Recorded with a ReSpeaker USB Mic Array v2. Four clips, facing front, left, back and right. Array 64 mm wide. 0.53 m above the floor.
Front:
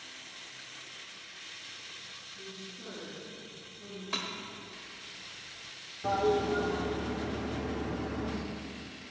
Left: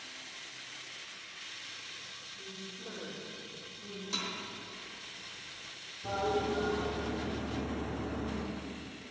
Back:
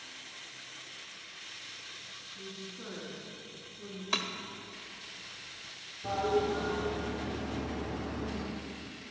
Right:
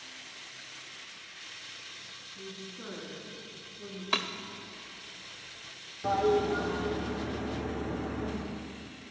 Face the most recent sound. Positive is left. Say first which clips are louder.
# right 6 dB, front 2 dB
turn(degrees=-55)